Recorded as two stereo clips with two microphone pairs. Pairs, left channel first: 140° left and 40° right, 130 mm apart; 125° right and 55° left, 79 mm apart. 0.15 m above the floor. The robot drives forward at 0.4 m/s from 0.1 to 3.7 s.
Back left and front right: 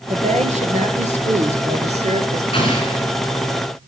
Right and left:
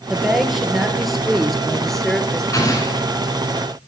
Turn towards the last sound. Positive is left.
turn(degrees=-170)